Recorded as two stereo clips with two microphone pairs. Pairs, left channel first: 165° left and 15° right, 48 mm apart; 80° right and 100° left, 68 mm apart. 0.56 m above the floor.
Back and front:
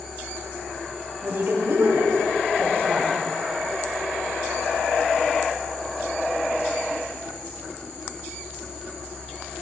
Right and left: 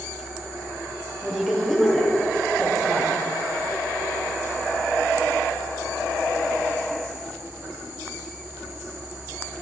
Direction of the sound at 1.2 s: 5° left.